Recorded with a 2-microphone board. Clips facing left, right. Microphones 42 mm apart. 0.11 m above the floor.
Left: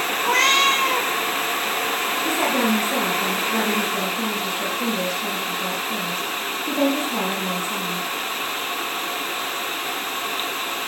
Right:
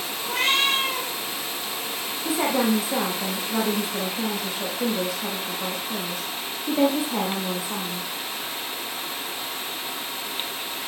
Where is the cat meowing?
80° left, 3 m.